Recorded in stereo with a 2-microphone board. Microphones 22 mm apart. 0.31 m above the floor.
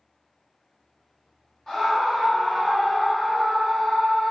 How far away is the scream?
About 1.9 m.